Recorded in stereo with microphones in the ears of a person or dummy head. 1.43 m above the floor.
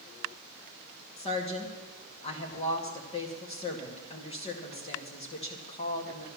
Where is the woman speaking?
25° left (ahead or behind), 1.9 m.